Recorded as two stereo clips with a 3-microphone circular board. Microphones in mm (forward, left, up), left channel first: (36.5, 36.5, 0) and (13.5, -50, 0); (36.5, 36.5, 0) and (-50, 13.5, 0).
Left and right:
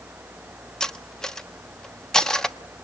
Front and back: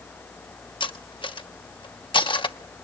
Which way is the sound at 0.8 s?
10° right.